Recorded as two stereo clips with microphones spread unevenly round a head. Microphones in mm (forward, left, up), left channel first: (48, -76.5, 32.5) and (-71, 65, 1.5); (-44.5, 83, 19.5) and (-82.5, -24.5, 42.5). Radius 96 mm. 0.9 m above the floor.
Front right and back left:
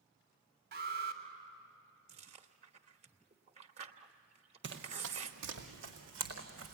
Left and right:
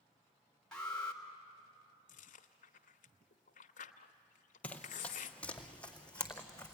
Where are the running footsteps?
155° left, 1.6 m.